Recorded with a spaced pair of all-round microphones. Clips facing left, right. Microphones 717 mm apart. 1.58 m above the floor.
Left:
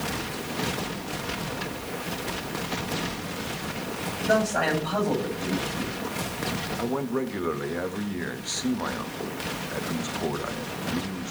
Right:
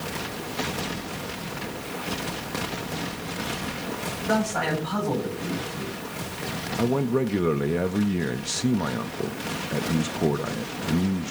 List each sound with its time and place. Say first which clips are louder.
4.3 s a man speaking: left 1 dB; 35° right (ahead or behind), 9.5 m
6.8 s a man speaking: right 5 dB; 60° right (ahead or behind), 0.7 m